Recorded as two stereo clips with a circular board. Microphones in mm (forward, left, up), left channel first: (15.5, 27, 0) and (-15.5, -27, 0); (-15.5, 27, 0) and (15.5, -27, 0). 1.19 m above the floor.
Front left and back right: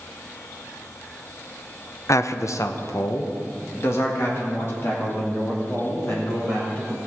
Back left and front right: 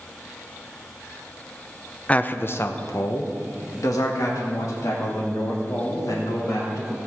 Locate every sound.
2.1 s a man speaking: 55° left, 0.6 m; by 7.0 s 110° left, 4 m